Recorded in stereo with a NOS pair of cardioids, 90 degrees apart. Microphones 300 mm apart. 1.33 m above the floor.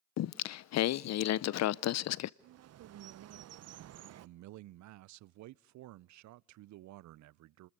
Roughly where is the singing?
Ahead left.